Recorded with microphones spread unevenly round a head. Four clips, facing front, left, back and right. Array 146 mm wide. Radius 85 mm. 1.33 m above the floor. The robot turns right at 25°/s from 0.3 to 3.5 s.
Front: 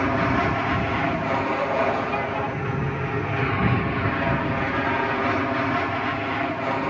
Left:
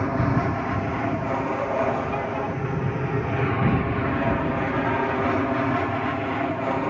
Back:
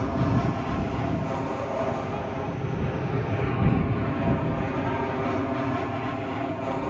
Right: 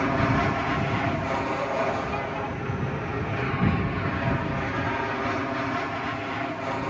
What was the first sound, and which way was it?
An aircraft, 15° right.